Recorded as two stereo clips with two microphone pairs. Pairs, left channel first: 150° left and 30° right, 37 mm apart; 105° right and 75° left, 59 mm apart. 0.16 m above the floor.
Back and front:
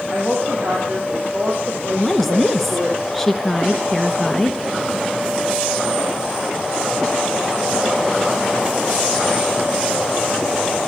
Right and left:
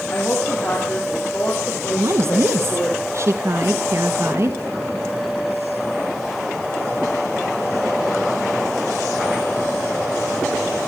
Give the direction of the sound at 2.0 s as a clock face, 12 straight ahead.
10 o'clock.